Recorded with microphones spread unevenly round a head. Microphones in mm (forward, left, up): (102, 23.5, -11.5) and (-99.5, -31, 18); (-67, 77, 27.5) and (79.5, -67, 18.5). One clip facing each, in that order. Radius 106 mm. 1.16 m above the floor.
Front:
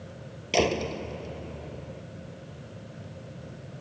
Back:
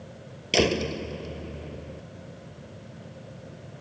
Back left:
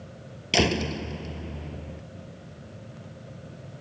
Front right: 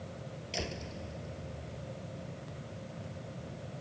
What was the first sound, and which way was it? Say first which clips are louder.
A door slam: back 2 dB, back left 17 dB; 125° left.